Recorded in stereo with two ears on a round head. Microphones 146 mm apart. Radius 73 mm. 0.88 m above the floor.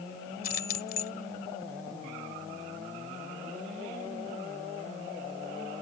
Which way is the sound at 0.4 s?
60° left (ahead or behind).